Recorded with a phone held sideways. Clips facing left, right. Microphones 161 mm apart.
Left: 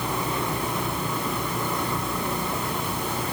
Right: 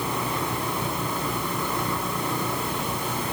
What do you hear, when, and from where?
Only background noise.